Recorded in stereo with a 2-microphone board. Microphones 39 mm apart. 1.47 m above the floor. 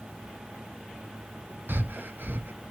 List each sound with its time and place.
1.7 s breathing: 65° right (ahead or behind), 0.6 m